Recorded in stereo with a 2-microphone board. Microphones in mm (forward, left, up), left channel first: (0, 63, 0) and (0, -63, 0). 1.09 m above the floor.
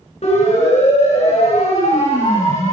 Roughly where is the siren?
Left.